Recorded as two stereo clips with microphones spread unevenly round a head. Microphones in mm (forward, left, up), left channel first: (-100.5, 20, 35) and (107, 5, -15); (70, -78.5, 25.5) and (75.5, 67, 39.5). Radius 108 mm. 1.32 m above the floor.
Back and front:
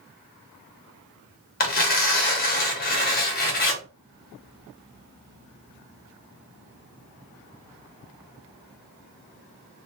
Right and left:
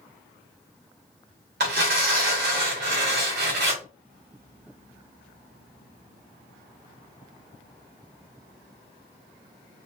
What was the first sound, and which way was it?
Tearing paper, 130° left.